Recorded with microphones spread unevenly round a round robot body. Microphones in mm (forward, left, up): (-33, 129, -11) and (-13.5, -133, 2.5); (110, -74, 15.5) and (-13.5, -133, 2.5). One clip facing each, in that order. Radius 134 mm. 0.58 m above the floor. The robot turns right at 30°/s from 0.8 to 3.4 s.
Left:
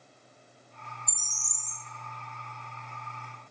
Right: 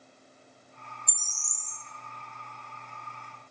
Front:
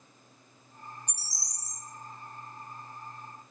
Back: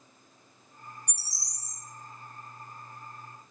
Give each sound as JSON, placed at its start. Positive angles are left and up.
{"t": 1.1, "sound": "a bird", "azimuth_deg": 25, "distance_m": 1.3}